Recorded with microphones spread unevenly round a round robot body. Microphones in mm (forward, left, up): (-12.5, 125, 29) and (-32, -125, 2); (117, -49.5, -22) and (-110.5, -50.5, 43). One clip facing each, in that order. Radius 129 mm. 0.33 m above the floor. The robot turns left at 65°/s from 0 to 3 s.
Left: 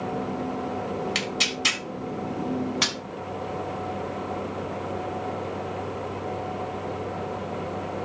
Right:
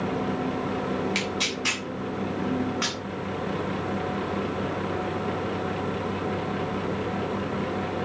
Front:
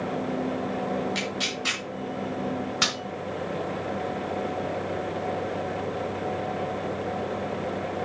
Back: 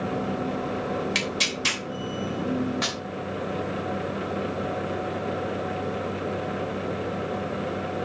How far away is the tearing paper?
About 3 m.